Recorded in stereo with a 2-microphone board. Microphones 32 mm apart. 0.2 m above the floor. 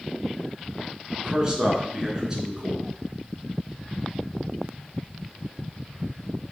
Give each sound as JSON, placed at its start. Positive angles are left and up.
{"t": 1.2, "sound": "a man speaking", "side_deg": -20, "distance_m": 2.5}